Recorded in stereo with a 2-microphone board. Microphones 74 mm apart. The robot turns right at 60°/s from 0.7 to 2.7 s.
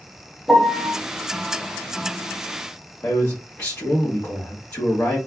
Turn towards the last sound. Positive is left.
turn(degrees=35)  # may be behind; listen again after turning